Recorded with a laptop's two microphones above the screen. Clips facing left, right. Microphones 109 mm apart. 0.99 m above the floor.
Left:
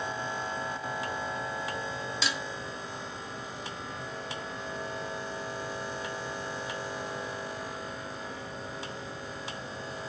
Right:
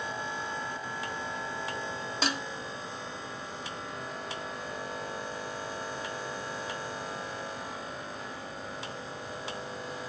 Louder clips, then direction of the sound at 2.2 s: Right 4 dB; 45° right (ahead or behind).